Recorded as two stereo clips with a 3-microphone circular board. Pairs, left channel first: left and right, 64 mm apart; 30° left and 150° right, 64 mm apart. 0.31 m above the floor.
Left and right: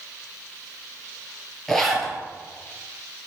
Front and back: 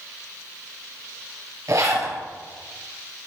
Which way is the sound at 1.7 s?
175° left.